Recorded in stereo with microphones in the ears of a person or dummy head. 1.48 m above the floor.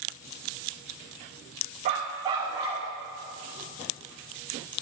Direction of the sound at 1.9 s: 25° right (ahead or behind).